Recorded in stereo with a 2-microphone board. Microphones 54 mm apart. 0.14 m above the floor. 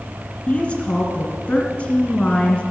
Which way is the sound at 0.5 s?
25° left (ahead or behind).